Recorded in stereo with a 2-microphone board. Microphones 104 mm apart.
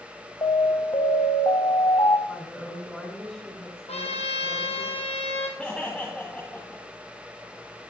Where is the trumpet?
80° left, 2 m.